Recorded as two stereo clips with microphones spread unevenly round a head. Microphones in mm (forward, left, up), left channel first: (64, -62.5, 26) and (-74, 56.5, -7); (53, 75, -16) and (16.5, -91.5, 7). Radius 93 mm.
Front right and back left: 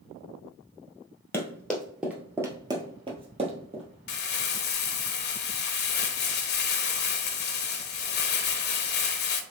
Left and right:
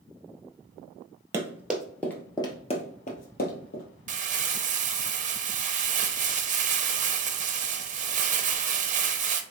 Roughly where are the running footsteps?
Right.